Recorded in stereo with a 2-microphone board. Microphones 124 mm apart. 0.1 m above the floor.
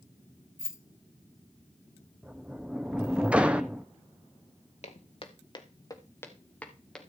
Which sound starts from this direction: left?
Footsteps, at 4.8 s.